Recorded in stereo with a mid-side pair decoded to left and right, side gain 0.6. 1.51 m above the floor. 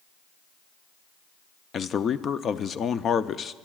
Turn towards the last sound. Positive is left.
turn(degrees=40)